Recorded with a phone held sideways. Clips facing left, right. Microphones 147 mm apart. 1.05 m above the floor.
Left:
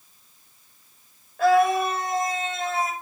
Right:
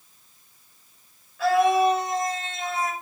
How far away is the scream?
About 4.5 m.